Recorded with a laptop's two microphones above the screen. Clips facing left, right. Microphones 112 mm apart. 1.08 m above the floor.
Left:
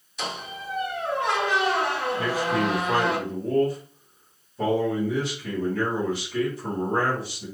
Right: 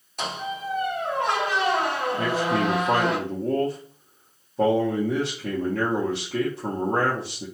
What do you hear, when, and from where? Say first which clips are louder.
0.2 s a squeak: right 4 dB; 55° right (ahead or behind), 1.2 m
2.2 s a man speaking: right 2 dB; 50° right (ahead or behind), 0.8 m